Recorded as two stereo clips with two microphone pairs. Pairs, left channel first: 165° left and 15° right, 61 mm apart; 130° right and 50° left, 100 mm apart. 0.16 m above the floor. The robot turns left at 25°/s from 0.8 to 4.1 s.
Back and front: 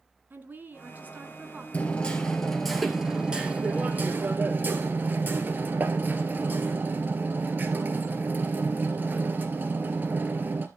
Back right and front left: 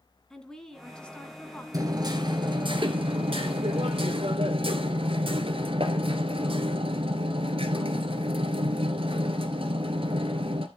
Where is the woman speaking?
45° right, 1.6 m; by 1.6 s 70° right, 1.6 m.